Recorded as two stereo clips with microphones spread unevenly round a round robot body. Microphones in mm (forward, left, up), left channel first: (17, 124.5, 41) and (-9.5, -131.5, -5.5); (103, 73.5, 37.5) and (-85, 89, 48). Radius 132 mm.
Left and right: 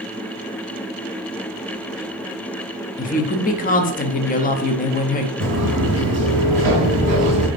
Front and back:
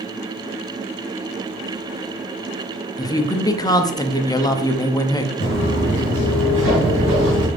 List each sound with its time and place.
3.0 s a woman speaking: 35° left, 0.6 m
5.4 s footsteps: 145° right, 1.8 m; by 7.5 s 150° right, 3 m